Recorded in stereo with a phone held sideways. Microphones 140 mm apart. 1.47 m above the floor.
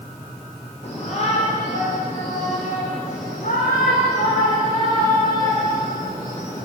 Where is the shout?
55° left (ahead or behind), 5 m; by 6.7 s 80° left, 6.5 m.